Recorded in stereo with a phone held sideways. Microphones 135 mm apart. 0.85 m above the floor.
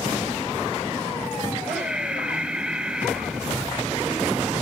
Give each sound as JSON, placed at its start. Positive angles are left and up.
{"t": 1.6, "sound": "breathing", "side_deg": -5, "distance_m": 3.5}